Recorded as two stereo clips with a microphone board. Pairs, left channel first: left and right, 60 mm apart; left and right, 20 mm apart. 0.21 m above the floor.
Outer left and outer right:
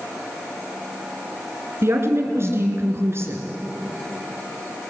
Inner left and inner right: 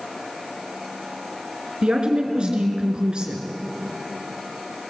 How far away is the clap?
No clap in this recording.